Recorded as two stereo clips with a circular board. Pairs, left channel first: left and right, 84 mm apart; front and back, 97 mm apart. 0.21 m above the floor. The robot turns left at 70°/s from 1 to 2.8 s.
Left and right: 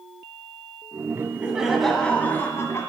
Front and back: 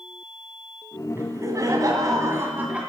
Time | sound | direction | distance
1.1 | laughter | 135° right | 1.8 m